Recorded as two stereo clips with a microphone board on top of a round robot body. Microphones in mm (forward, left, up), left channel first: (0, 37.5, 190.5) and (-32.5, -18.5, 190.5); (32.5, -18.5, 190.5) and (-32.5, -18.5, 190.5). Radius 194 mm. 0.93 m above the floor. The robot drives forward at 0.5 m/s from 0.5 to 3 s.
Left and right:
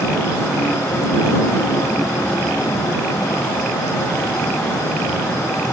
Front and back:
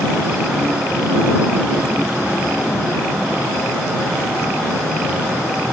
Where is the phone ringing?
I don't hear a phone ringing.